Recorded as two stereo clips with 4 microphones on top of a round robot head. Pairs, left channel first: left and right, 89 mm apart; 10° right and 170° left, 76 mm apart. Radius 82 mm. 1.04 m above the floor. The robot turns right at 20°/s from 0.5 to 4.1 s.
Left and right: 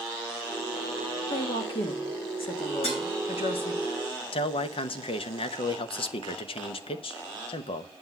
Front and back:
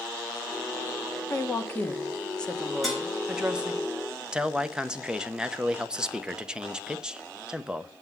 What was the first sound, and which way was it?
A woman speaking, 50° left.